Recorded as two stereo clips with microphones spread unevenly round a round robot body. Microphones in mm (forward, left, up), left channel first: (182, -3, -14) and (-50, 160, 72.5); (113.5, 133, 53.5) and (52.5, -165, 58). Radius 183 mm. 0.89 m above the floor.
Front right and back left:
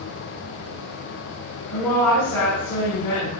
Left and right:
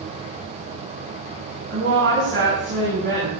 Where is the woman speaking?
55° right, 6.5 m.